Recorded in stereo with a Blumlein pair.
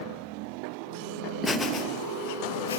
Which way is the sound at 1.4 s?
5° left.